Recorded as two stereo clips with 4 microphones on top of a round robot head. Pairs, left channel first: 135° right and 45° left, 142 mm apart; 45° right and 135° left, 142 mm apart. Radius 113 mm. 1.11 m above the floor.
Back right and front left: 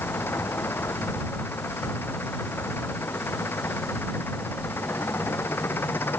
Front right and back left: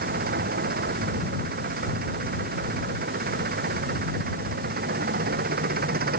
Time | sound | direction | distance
0.0 | an engine running | 150° left | ?